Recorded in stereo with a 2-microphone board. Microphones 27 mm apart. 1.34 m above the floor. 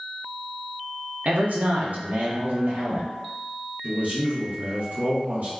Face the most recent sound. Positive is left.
turn(degrees=-70)  # may be behind; listen again after turning